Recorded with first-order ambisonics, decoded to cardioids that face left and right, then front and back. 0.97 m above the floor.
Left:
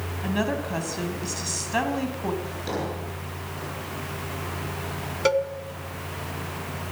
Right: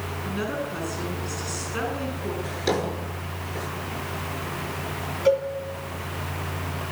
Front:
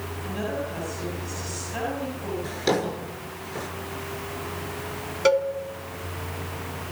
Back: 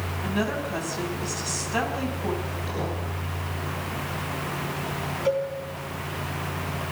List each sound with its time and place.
0.2 s a woman speaking: 115° left, 7.5 m
2.4 s a drawer: 25° right, 9 m
5.2 s a cowbell: 40° left, 2 m